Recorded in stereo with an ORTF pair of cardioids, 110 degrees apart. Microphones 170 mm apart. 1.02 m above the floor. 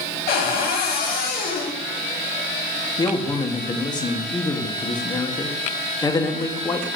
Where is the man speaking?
25° left, 1.7 m.